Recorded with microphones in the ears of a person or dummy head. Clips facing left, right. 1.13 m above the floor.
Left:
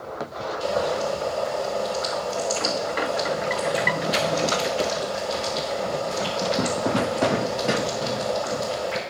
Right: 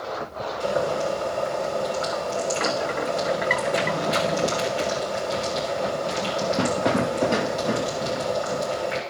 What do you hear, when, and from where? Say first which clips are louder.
0.6 s boiling: even; 35° right (ahead or behind), 3.5 m